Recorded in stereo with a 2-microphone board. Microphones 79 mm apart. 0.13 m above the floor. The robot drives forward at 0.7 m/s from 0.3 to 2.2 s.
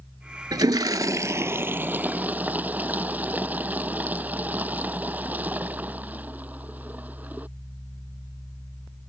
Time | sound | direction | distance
0.5 | a toilet flushing | 60° right (ahead or behind) | ?